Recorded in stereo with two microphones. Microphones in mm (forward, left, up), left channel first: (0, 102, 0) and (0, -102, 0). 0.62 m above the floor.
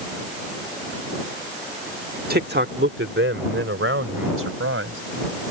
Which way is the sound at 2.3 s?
45° right (ahead or behind).